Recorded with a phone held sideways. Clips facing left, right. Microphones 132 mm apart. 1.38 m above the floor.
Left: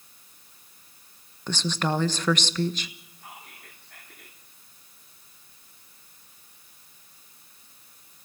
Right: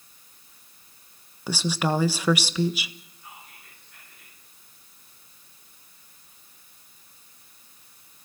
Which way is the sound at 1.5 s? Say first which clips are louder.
Right 2 dB; 10° right (ahead or behind).